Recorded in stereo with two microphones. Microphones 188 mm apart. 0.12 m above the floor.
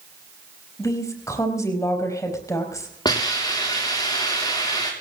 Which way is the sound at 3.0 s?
25° left (ahead or behind).